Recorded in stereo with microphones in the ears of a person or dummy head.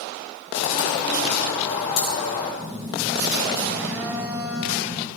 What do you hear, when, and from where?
0.5 s a bird: 40° left (ahead or behind), 6.5 m
2.6 s a phone buzzing: 5° right (ahead or behind), 1.1 m